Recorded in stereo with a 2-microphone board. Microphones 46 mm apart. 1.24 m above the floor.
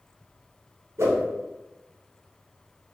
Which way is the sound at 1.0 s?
75° right (ahead or behind).